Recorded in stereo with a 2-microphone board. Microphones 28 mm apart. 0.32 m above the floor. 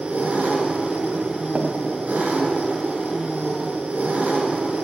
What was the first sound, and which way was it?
An engine running, 70° right (ahead or behind).